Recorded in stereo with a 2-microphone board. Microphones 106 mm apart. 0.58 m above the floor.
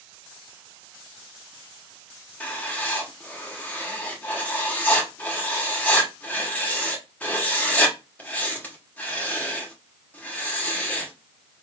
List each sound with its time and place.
2.4 s writing: 15° left (ahead or behind), 1.1 m